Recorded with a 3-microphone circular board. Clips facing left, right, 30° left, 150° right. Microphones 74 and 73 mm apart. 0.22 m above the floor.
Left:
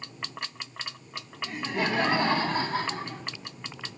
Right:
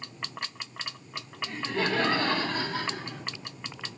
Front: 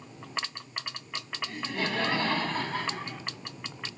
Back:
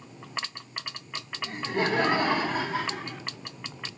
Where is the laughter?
165° left, 1.4 m; by 3.2 s 120° left, 1.6 m.